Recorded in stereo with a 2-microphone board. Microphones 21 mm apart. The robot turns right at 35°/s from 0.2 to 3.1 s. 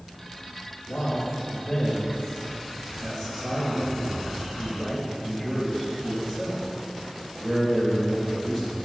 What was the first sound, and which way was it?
A man speaking, 120° left.